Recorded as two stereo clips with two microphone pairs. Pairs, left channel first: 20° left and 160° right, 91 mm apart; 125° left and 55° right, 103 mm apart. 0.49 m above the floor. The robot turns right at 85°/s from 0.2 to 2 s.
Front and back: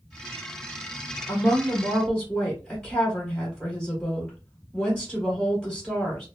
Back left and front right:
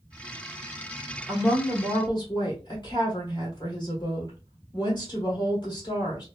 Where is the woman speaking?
45° left, 1.5 m; by 6.2 s 110° left, 1.5 m.